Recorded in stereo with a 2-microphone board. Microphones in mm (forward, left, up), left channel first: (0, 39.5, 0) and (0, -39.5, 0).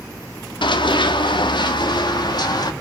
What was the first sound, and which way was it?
Running footsteps, 85° left.